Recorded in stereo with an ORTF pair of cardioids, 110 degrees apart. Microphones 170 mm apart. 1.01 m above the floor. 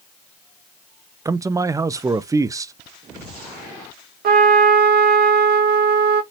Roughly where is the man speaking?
Ahead.